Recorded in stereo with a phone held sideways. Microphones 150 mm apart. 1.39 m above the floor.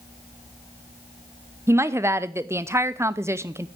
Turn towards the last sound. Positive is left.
turn(degrees=-15)  # may be behind; listen again after turning